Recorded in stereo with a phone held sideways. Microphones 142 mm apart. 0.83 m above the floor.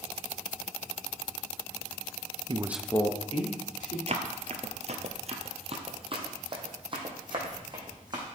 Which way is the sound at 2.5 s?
35° right (ahead or behind).